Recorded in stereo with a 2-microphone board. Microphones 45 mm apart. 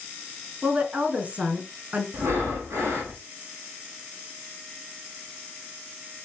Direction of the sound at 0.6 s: 30° right (ahead or behind).